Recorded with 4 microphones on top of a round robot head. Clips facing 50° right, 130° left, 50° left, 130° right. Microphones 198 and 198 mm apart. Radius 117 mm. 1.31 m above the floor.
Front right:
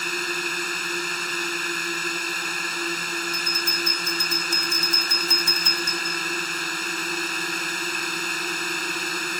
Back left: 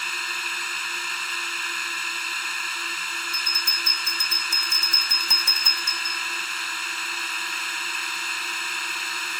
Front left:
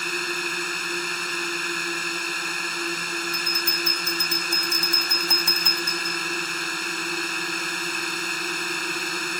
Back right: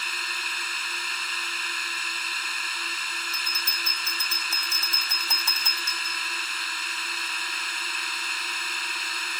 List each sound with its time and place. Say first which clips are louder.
0.0 s a drone: front right 11 dB, front left 12 dB; straight ahead
3.3 s a bell: front right 9 dB, front left 11 dB; 125° left